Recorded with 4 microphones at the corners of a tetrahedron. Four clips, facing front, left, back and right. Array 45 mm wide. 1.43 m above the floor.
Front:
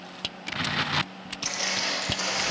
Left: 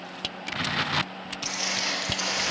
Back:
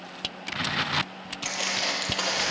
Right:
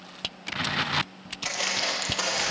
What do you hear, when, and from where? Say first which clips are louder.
1.4 s footsteps: right 2 dB, back 1 dB; 125° right, 2 m; by 2.5 s 155° right, 2.5 m